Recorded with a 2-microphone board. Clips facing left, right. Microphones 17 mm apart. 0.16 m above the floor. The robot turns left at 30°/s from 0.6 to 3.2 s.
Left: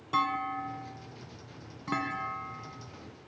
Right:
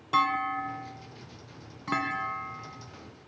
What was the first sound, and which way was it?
A clunk, 20° right (ahead or behind).